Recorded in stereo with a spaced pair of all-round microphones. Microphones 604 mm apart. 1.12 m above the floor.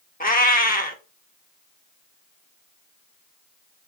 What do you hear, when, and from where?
0.2 s a cat meowing: 15° left (ahead or behind), 0.5 m